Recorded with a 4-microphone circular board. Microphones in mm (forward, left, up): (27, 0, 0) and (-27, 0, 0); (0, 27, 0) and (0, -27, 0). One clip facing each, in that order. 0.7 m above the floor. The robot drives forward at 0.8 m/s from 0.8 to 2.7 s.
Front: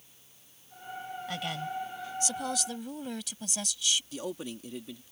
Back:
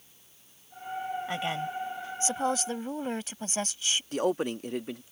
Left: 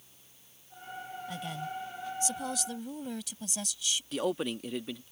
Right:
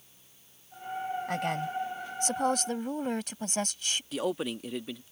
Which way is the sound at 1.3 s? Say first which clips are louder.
Even, right 5 dB; 115° right.